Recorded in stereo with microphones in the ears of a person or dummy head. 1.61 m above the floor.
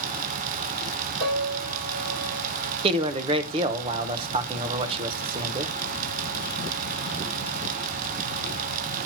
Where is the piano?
60° right (ahead or behind), 3 m.